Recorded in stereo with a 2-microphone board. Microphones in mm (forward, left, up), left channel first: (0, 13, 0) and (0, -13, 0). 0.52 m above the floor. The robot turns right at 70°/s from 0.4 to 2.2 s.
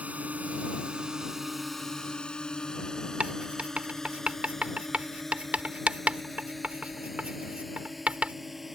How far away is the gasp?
No gasp in this recording.